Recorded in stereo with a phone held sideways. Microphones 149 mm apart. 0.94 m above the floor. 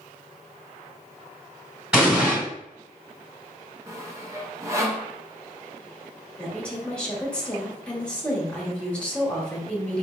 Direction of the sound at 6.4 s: 5° left (ahead or behind).